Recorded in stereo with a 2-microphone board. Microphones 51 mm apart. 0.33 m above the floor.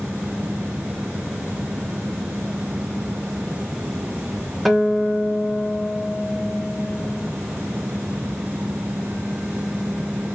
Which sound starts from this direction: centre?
A guitar, at 4.7 s.